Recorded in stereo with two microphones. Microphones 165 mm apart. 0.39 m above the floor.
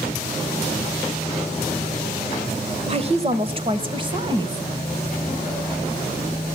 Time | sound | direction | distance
2.9 | a woman speaking | 40° right (ahead or behind) | 1.5 m